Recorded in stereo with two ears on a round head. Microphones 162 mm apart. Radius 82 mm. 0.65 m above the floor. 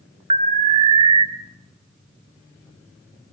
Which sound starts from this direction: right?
An alarm, at 0.3 s.